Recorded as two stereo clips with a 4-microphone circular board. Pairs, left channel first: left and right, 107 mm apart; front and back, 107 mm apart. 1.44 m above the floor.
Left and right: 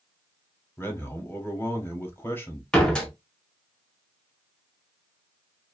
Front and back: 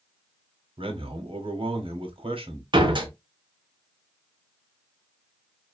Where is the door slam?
170° left, 0.7 m.